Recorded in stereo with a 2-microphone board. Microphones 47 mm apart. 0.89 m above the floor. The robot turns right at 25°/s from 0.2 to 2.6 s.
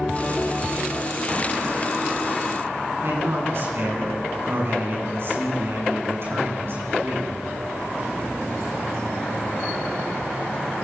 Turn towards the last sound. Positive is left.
turn(degrees=-55)  # may be behind; listen again after turning